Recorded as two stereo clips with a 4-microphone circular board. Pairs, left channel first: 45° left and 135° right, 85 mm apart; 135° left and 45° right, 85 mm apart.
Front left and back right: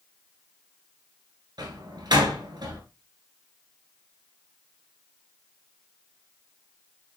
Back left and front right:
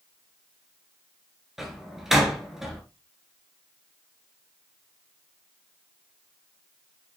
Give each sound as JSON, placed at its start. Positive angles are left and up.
{"t": 1.6, "sound": "a door slam", "azimuth_deg": -130, "distance_m": 1.9}